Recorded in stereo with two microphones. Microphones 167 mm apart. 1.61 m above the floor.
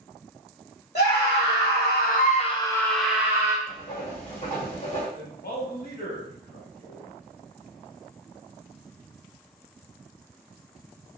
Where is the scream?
80° left, 1.0 m; by 3.6 s 20° right (ahead or behind), 0.8 m.